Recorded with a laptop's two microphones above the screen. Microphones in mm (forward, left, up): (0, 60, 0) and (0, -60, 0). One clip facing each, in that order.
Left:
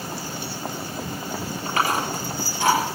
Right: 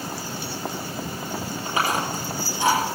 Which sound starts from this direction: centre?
Chewing, at 1.6 s.